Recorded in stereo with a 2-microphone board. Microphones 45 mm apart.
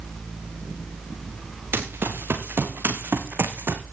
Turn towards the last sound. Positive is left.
turn(degrees=-55)  # may be behind; listen again after turning